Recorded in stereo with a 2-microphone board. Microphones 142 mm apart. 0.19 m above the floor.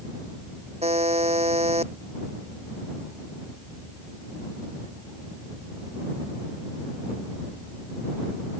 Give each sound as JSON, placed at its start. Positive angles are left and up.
{"t": 0.8, "sound": "a buzzer", "side_deg": -45}